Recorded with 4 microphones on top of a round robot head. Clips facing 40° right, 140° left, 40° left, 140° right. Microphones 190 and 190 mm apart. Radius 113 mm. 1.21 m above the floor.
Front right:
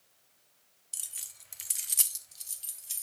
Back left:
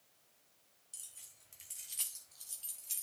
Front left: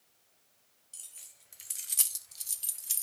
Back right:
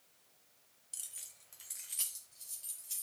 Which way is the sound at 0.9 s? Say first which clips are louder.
Front right 8 dB, back right 1 dB; 65° right.